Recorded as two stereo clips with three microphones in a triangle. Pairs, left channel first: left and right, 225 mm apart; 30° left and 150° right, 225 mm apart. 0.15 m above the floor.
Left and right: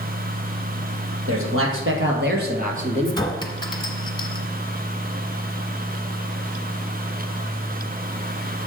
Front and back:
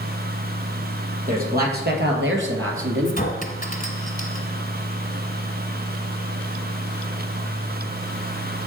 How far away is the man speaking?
About 3.5 m.